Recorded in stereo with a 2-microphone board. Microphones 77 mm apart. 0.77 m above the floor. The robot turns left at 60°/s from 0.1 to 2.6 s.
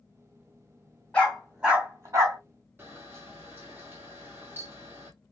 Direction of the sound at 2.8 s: 30° right (ahead or behind).